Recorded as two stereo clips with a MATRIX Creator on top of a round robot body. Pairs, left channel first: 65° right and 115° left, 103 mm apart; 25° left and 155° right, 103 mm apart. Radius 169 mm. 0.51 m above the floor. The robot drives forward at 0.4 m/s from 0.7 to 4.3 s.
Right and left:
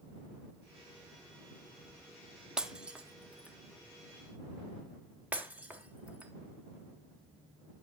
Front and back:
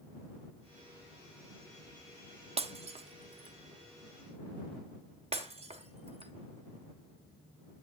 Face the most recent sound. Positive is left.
turn(degrees=-170)